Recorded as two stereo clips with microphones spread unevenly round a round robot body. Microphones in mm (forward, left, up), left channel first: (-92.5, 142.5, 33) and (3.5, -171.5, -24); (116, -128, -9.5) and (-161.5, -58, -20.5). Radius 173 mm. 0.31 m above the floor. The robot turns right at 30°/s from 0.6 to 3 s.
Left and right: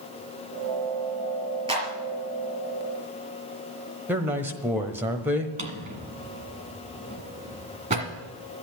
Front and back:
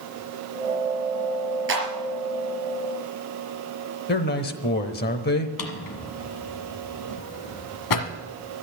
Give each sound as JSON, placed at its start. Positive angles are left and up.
{"t": 1.7, "sound": "a clap", "azimuth_deg": -150, "distance_m": 4.0}
{"t": 4.1, "sound": "a man speaking", "azimuth_deg": -15, "distance_m": 1.0}
{"t": 5.6, "sound": "a drawer", "azimuth_deg": -5, "distance_m": 1.4}